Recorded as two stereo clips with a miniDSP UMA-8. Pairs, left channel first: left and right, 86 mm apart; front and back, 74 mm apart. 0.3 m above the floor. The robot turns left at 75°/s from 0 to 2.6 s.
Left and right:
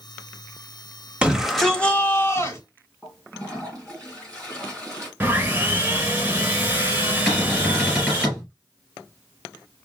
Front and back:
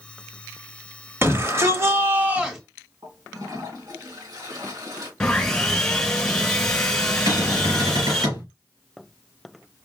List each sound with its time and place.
1.2 s a shout: 155° right, 1.1 m; by 2.6 s 100° left, 1.1 m
3.0 s a toilet flushing: 170° left, 2.5 m
5.2 s sawing: 60° right, 1.6 m
7.3 s a cupboard door: straight behind, 3.5 m